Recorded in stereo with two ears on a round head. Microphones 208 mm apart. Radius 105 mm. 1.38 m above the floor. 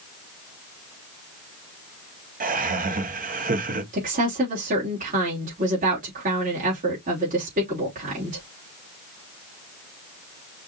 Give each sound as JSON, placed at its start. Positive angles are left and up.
{"t": 2.4, "sound": "laughter", "side_deg": -40, "distance_m": 1.9}
{"t": 3.9, "sound": "a woman speaking", "side_deg": -35, "distance_m": 3.0}